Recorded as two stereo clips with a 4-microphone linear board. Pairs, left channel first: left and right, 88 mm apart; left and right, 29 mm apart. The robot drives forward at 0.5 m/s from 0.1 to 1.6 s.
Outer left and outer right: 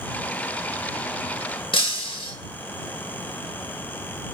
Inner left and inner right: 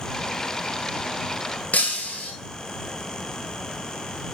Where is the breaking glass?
75° left (ahead or behind), 0.6 m.